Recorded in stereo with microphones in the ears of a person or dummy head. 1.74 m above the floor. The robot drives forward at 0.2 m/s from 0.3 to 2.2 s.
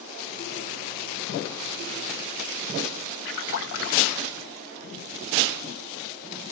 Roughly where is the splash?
Left.